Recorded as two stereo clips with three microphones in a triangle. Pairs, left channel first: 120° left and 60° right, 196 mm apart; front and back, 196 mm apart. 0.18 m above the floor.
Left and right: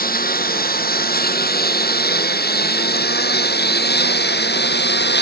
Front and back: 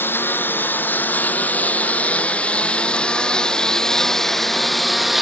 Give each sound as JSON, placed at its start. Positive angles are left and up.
{"t": 0.0, "sound": "a lawn mower", "azimuth_deg": 80}